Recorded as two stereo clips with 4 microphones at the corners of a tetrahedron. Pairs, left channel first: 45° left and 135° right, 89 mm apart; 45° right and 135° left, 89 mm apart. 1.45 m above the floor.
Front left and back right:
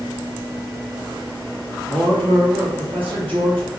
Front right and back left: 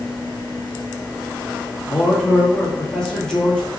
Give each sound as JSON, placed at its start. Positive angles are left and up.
{"t": 1.9, "sound": "a man speaking", "azimuth_deg": -125, "distance_m": 1.9}